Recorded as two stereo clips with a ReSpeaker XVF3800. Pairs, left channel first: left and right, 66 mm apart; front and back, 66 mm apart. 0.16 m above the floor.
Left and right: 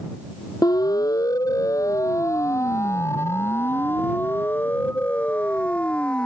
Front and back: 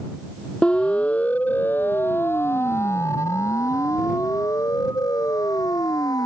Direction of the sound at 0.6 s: 75° left.